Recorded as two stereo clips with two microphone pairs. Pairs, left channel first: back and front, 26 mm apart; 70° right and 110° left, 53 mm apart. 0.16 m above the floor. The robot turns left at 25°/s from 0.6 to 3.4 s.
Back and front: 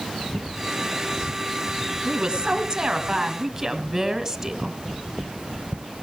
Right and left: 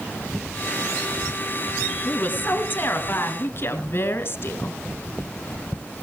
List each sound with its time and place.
2.0 s a woman speaking: 20° right, 1.8 m; by 4.8 s 55° right, 1.8 m